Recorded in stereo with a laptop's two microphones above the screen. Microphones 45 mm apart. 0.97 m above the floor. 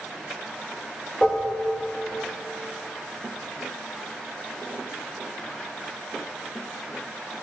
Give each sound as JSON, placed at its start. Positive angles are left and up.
{"t": 1.2, "sound": "dishes clattering", "side_deg": 20, "distance_m": 0.8}